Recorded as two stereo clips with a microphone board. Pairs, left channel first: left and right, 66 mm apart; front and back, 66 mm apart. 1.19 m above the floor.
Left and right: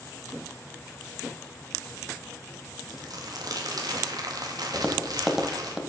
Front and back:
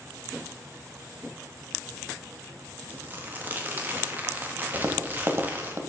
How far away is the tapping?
About 1.2 m.